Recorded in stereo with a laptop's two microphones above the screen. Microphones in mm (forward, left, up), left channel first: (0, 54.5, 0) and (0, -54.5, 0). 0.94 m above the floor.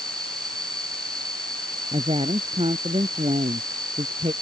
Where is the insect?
40° right (ahead or behind).